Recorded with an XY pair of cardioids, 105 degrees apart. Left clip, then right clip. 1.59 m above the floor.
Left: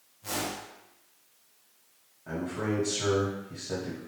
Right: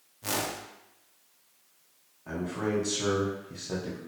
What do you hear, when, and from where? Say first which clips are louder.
0.2 s a whoosh: right 2 dB; 65° right, 0.5 m
2.3 s a man speaking: right 1 dB; 10° right, 1.1 m